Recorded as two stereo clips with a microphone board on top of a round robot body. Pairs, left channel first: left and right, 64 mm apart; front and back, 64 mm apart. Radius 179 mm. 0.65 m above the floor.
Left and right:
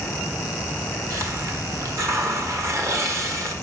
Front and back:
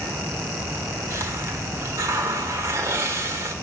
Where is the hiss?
130° right, 1.7 m.